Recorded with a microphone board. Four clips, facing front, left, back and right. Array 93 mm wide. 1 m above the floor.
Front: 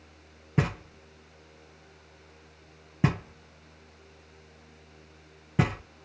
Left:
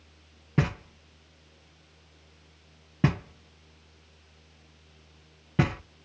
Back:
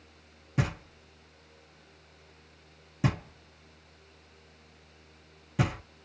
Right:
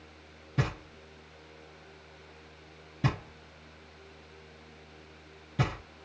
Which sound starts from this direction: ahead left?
Knocking, at 0.6 s.